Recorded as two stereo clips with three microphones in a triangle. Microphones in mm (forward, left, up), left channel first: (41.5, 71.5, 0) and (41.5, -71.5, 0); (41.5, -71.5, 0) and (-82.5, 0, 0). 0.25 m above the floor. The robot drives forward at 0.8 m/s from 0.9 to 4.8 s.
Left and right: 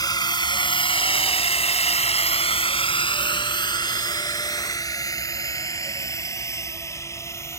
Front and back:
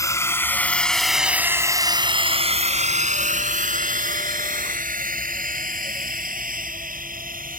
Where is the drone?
35° left; by 7.6 s 160° left.